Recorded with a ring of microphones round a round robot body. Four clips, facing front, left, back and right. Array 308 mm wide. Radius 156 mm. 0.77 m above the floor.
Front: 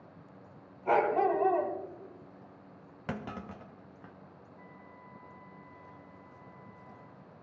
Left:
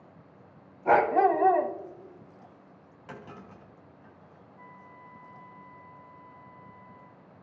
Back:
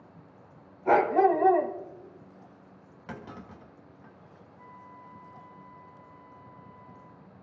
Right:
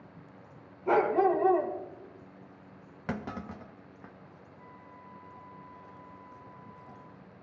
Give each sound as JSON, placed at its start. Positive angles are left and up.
{"t": 0.8, "sound": "a dog barking", "azimuth_deg": 110, "distance_m": 2.5}
{"t": 3.1, "sound": "a clunk", "azimuth_deg": -55, "distance_m": 1.2}
{"t": 4.6, "sound": "a flute", "azimuth_deg": 85, "distance_m": 2.5}